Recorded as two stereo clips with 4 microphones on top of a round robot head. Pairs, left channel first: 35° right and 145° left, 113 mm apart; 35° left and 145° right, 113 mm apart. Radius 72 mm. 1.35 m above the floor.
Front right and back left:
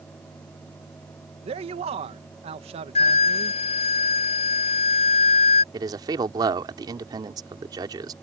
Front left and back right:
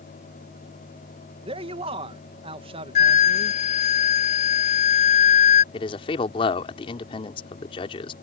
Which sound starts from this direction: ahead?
A flute, at 3.0 s.